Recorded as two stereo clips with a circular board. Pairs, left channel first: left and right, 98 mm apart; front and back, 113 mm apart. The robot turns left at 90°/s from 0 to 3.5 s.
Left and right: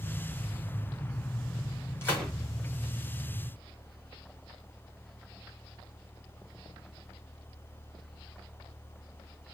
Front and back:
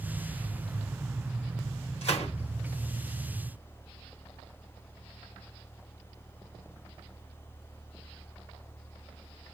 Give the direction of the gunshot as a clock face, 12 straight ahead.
11 o'clock.